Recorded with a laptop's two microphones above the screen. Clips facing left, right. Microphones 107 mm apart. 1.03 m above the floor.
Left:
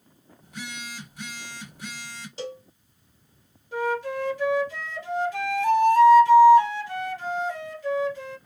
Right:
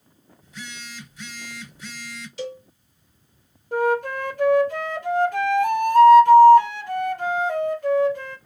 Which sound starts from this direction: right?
A flute, at 3.7 s.